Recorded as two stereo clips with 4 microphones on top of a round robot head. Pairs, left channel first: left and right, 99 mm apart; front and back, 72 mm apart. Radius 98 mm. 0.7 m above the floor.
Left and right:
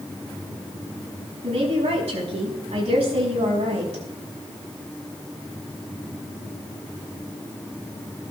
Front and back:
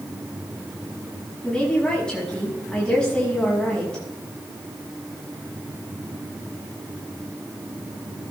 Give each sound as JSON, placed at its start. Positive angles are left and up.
{"t": 1.4, "sound": "a woman speaking", "azimuth_deg": -80, "distance_m": 6.5}